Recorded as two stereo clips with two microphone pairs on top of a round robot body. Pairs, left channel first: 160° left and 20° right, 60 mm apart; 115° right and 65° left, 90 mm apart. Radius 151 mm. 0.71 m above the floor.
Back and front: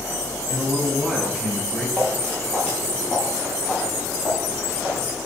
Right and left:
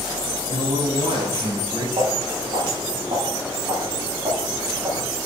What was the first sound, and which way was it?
A man speaking, 90° left.